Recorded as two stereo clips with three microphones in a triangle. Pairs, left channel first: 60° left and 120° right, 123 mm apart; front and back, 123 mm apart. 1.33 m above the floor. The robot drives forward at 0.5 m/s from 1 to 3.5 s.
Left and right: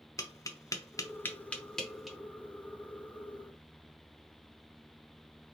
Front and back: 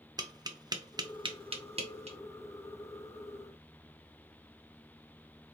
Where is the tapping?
120° left, 0.5 m; by 2.2 s 150° left, 1.0 m.